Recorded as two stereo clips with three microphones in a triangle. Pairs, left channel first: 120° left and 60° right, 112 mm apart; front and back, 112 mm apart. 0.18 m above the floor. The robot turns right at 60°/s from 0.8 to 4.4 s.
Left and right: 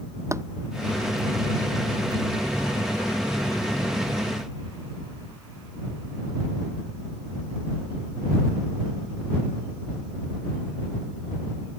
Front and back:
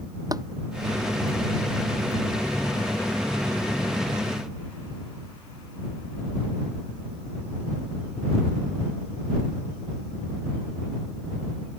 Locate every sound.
0.3 s tapping: 125° right